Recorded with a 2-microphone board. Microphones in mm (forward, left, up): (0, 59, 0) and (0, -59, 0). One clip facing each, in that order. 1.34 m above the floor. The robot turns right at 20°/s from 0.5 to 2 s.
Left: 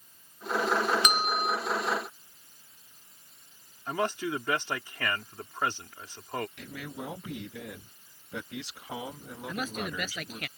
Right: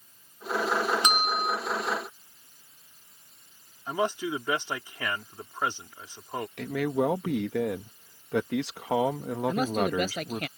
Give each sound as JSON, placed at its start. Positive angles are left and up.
{"t": 1.0, "sound": "a bell", "side_deg": -25}
{"t": 3.9, "sound": "a man speaking", "side_deg": -10}
{"t": 6.6, "sound": "a man speaking", "side_deg": -85}
{"t": 9.5, "sound": "a man speaking", "side_deg": -35}